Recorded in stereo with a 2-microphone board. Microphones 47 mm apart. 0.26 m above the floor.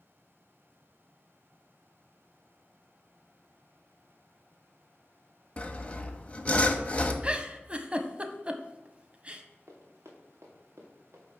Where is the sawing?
25° left (ahead or behind), 0.7 m.